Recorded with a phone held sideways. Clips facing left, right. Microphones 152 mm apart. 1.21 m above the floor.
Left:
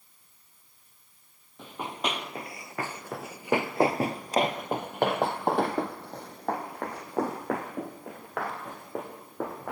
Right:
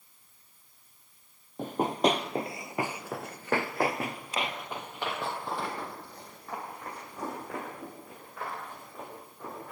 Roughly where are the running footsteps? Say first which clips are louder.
Right 8 dB; right.